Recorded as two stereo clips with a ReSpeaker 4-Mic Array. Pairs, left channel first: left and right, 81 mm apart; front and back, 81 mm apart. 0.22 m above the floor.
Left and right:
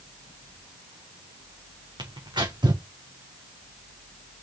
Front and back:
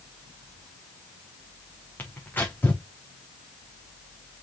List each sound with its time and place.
2.0 s tearing paper: 65° right, 4 m